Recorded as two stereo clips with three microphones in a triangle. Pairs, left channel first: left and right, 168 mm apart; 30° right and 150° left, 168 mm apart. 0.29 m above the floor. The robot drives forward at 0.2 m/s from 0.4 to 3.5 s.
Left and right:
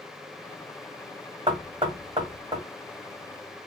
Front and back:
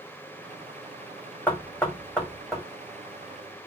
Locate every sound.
1.5 s knocking: 105° right, 1.1 m; by 2.6 s 120° right, 1.2 m